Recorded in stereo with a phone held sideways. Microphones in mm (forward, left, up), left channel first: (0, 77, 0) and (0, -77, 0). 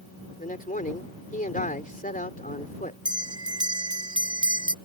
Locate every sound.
0.4 s a man speaking: 60° left (ahead or behind)
3.0 s a bell: 30° right (ahead or behind)